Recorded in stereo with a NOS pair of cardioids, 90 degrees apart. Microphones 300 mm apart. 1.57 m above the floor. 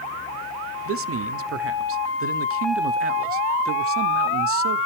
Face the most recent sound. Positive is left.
turn(degrees=-50)